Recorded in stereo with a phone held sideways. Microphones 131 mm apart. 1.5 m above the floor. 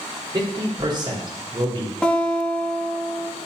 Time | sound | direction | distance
0.3 | a man speaking | 35° right (ahead or behind) | 4 m
2.0 | a guitar | 5° left (ahead or behind) | 2 m